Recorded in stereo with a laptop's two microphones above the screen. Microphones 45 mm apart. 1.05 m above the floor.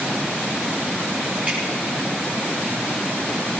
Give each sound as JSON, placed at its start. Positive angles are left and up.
{"t": 1.5, "sound": "dripping", "side_deg": -35, "distance_m": 8.0}